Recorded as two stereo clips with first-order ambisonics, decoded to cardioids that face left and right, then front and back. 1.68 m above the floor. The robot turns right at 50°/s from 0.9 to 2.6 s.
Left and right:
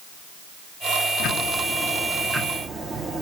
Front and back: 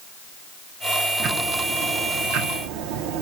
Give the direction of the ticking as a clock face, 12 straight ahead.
8 o'clock.